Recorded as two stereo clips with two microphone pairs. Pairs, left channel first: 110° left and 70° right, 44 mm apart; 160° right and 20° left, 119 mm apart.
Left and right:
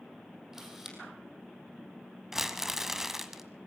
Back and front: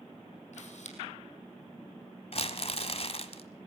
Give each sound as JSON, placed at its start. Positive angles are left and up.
{"t": 0.5, "sound": "a camera shutter", "azimuth_deg": -145, "distance_m": 4.0}
{"t": 2.3, "sound": "crumpling", "azimuth_deg": -145, "distance_m": 1.3}